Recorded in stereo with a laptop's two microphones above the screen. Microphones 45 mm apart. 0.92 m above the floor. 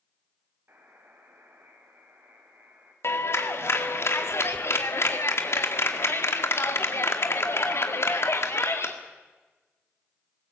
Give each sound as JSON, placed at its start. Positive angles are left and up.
{"t": 0.7, "sound": "a buzzer", "side_deg": -55, "distance_m": 4.5}
{"t": 3.0, "sound": "a clap", "side_deg": 65, "distance_m": 2.0}